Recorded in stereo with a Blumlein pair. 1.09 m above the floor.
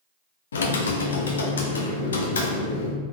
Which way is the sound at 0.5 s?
65° left.